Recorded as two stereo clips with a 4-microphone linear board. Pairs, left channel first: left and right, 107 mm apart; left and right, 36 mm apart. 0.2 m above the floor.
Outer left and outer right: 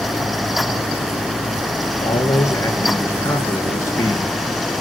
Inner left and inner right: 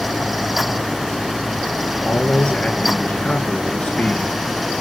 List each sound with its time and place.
2.0 s a man speaking: 30° left (ahead or behind), 3.5 m